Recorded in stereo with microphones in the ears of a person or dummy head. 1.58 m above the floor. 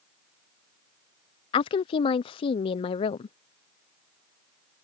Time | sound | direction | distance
1.5 | a woman speaking | 30° left (ahead or behind) | ?